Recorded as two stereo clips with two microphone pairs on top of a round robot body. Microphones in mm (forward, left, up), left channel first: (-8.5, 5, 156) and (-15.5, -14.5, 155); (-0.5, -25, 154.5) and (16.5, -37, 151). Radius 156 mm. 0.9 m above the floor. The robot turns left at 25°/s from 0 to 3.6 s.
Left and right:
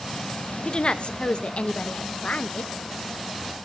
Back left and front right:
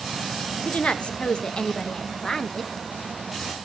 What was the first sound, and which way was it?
A woman speaking, 120° left.